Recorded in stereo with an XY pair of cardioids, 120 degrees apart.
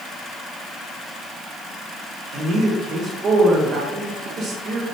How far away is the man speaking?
About 1.2 m.